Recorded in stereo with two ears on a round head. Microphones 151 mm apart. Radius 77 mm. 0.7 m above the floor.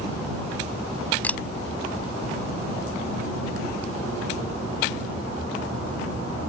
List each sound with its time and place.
1.2 s a camera shutter: 10° left (ahead or behind)